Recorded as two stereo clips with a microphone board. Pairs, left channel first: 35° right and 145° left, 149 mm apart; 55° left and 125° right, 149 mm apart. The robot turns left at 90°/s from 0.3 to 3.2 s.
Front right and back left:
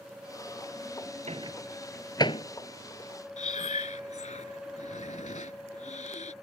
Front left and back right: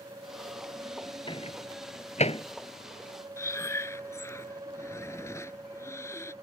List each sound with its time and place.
1.3 s a microwave: 110° left; by 2.5 s 5° left
3.4 s breathing: 10° right